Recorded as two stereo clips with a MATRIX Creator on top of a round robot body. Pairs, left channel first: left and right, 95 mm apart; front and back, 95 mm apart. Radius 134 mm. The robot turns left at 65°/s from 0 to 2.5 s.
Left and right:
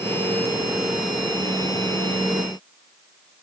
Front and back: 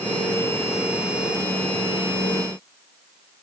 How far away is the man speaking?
I don't hear a man speaking.